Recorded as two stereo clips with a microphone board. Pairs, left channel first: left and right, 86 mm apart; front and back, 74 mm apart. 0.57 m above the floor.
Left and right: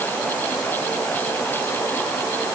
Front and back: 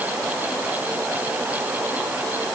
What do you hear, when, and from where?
Only background noise.